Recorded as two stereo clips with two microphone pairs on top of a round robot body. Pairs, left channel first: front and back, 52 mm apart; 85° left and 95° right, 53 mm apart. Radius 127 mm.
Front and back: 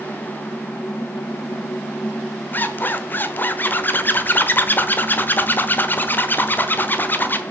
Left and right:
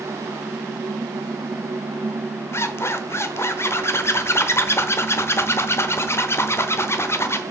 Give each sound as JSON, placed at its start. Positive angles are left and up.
{"t": 2.5, "sound": "a zipper", "azimuth_deg": 50, "distance_m": 0.9}